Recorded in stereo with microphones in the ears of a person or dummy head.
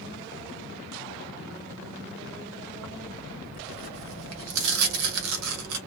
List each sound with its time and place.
2.8 s tearing paper: 80° right, 0.7 m